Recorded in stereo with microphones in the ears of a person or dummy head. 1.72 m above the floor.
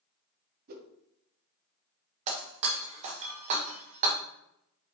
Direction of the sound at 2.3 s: 30° right (ahead or behind).